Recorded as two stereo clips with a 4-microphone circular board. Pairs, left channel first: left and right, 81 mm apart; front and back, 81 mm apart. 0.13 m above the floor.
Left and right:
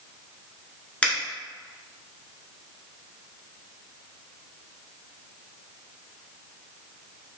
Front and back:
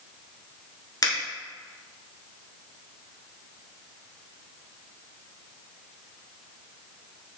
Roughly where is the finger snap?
Ahead.